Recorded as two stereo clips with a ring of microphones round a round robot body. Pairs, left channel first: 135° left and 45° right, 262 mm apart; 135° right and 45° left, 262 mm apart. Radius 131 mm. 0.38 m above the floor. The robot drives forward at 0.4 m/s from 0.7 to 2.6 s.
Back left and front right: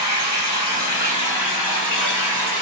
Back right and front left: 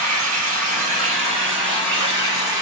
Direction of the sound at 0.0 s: 110° left.